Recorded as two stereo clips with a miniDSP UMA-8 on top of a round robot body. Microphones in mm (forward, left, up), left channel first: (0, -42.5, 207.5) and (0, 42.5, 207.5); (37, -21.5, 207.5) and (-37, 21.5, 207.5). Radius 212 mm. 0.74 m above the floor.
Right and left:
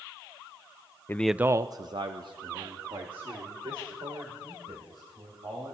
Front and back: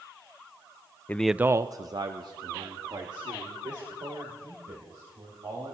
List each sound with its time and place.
1.1 s a man speaking: 70° right, 0.6 m; by 5.7 s 115° left, 5 m